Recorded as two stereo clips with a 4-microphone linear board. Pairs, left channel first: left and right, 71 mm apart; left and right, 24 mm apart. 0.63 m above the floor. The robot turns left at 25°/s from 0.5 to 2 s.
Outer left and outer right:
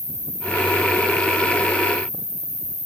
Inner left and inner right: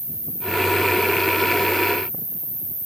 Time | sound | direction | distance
0.0 | an insect | 155° right | 2 m